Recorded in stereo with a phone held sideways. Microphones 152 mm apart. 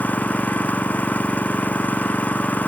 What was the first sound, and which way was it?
An engine running, 10° left (ahead or behind).